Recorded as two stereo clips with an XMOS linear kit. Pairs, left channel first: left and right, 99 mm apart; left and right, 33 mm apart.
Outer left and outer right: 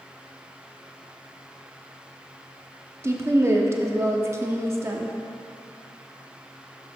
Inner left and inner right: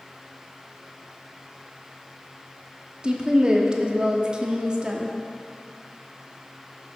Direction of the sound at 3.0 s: 30° right (ahead or behind).